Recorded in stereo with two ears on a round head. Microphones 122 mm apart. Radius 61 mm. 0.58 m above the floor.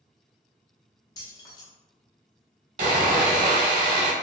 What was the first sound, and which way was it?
Keys jangling, 30° left (ahead or behind).